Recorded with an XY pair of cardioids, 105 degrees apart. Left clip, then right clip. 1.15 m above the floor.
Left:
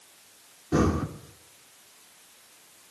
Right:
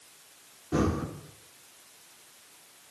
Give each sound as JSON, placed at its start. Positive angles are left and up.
{"t": 0.7, "sound": "breathing", "azimuth_deg": 30, "distance_m": 3.5}